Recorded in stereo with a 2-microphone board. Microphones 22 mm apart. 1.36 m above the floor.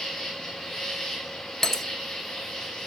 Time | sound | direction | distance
0.0 | an insect | 15° left (ahead or behind) | 6.5 m
1.6 | breaking glass | 20° left (ahead or behind) | 0.9 m